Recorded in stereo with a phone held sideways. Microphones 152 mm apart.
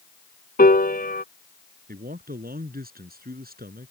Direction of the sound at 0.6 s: 75° left (ahead or behind).